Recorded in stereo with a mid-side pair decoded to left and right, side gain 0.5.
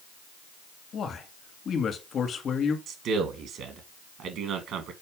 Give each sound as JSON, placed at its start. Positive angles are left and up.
{"t": 0.9, "sound": "a man speaking", "azimuth_deg": 50, "distance_m": 2.0}
{"t": 2.9, "sound": "a man speaking", "azimuth_deg": -70, "distance_m": 2.0}